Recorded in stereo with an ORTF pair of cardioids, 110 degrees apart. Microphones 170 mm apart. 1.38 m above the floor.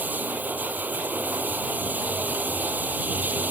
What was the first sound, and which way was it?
Running water, 10° right.